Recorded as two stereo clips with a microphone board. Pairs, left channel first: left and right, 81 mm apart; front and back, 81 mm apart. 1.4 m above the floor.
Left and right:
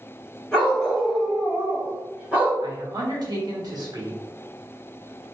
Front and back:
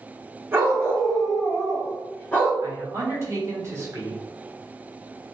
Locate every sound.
0.5 s a dog barking: 165° left, 1.2 m; by 2.5 s 40° right, 1.1 m
2.6 s a man speaking: 125° right, 1.0 m